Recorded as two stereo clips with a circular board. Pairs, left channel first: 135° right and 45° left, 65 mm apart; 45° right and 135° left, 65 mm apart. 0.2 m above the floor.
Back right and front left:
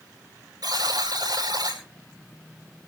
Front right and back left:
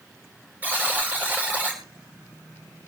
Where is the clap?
No clap in this recording.